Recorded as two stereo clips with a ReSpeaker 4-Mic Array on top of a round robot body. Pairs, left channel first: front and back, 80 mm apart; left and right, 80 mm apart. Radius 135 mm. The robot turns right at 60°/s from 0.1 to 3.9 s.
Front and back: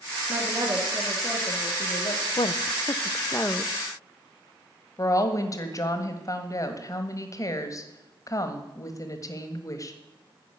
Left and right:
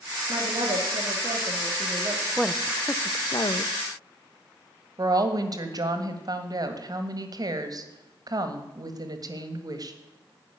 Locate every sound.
0.3 s a woman speaking: 135° right, 1.9 m; by 2.2 s 15° right, 1.9 m
2.4 s a woman speaking: 10° right, 0.7 m; by 3.7 s 75° left, 0.7 m
5.0 s a woman speaking: 50° right, 1.7 m